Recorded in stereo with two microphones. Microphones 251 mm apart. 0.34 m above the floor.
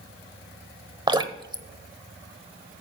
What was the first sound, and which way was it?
Dripping, 20° right (ahead or behind).